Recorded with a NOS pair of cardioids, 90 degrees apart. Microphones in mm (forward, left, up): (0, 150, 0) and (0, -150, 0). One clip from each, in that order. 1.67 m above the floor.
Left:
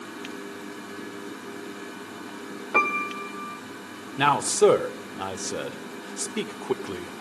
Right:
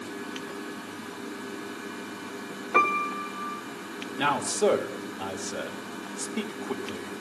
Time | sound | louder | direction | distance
2.7 | a piano | even | 10° left | 1.1 m
4.2 | a man speaking | left 5 dB | 40° left | 1.2 m